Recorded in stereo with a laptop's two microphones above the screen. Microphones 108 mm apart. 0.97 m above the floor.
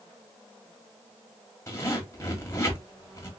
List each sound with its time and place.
1.7 s a zipper: 25° left (ahead or behind), 1.5 m